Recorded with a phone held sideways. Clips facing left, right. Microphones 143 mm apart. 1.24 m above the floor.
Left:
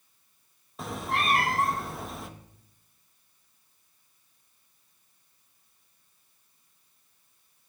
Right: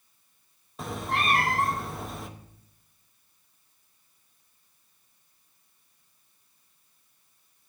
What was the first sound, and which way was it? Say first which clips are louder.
A cat meowing: right 1 dB; centre (ahead or behind).